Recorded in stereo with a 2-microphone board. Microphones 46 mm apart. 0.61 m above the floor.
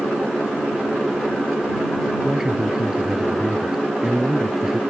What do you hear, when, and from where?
2.2 s a man speaking: 10° right (ahead or behind)